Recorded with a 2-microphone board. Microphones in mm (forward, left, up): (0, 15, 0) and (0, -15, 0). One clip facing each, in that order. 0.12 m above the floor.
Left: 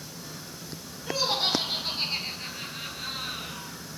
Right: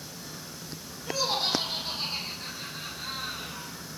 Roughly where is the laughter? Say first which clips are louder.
Left 2 dB; left.